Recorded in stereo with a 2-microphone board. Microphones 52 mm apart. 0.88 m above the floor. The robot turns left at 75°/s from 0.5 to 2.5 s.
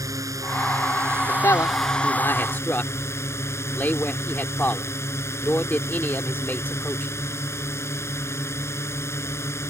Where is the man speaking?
50° left (ahead or behind); by 7.1 s 40° left (ahead or behind).